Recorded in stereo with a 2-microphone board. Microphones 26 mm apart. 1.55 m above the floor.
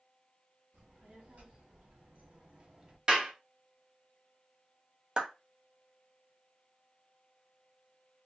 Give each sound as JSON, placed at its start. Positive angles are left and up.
{"t": 0.7, "sound": "a child speaking", "side_deg": -70, "distance_m": 1.5}
{"t": 3.1, "sound": "a clap", "side_deg": -35, "distance_m": 0.9}
{"t": 5.2, "sound": "a clap", "side_deg": -35, "distance_m": 0.8}